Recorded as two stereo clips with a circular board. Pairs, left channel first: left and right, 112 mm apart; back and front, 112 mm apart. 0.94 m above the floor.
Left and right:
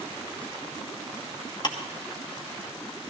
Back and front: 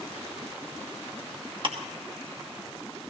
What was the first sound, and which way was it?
Ticking, 40° left.